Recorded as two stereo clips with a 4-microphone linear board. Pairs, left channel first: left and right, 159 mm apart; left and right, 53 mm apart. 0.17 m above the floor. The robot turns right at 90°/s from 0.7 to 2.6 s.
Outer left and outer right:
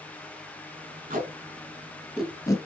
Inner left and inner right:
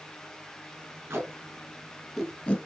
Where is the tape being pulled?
60° right (ahead or behind), 0.8 m; by 2.6 s 25° left (ahead or behind), 0.8 m.